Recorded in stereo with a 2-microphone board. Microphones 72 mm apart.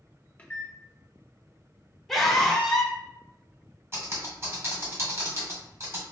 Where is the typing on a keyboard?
40° right (ahead or behind), 1.7 m.